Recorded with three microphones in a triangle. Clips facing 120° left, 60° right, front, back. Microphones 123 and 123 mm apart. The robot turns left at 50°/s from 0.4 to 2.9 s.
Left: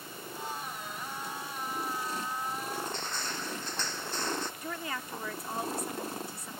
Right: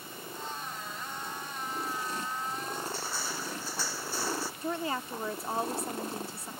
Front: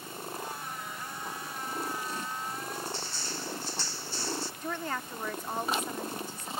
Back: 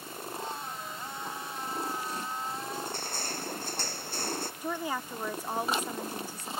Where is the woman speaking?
105° right.